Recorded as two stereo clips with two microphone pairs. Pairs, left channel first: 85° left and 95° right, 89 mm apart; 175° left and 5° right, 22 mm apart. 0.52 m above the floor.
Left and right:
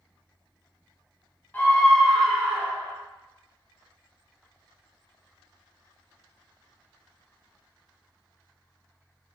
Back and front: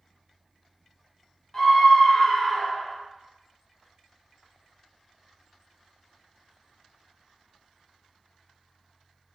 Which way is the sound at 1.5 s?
135° left.